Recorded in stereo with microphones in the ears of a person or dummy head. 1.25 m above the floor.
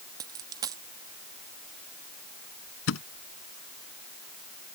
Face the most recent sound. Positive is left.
turn(degrees=75)  # may be behind; listen again after turning